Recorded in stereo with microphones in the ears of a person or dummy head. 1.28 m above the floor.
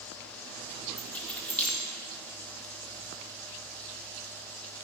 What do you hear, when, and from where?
1.0 s keys jangling: 5° left (ahead or behind), 1.3 m